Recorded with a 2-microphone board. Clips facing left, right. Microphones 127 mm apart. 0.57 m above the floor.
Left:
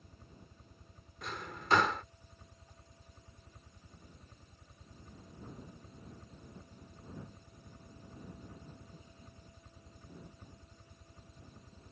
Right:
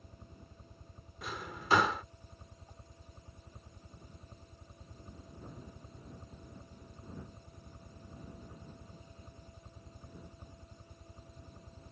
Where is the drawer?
5° right (ahead or behind).